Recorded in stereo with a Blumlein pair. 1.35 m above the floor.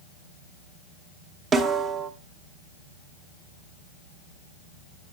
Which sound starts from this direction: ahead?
A snare drum, at 1.5 s.